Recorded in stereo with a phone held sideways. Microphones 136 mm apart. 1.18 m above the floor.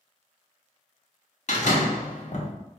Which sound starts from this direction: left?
A door slam, at 1.5 s.